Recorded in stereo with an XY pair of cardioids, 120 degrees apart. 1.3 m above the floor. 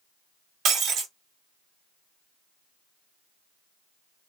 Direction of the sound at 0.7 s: 65° right.